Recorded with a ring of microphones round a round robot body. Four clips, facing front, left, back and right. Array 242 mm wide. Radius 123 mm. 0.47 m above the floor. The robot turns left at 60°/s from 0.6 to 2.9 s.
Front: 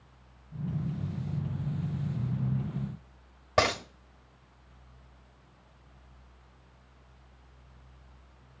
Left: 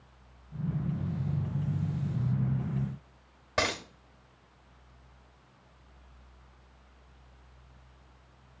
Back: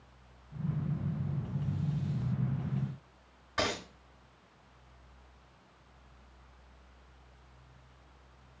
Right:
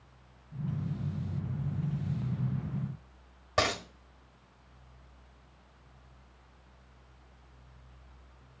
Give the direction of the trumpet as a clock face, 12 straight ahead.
No trumpet in this recording.